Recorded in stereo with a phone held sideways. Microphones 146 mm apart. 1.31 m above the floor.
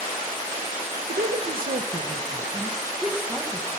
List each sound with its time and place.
1.1 s a woman speaking: 85° right, 0.9 m; by 3.7 s 5° right (ahead or behind), 1.3 m